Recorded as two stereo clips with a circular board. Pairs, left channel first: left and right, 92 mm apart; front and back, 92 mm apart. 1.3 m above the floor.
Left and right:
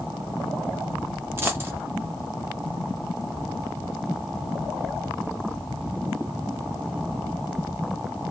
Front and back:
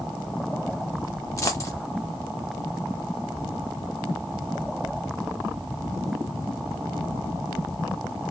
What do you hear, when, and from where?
1.4 s a dropped coin: 40° right, 1.0 m